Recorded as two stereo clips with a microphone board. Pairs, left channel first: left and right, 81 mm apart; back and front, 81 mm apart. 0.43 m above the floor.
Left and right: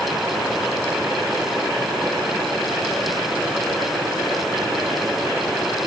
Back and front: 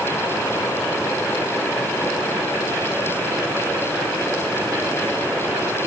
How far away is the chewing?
I don't hear chewing.